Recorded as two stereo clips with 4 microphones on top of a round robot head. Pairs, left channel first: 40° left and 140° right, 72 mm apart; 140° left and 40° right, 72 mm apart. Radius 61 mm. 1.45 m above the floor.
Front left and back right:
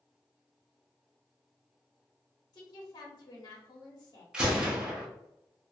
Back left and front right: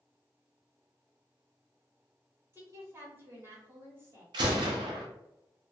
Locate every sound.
2.5 s a woman speaking: 15° left, 1.1 m
4.3 s a gunshot: 60° right, 0.7 m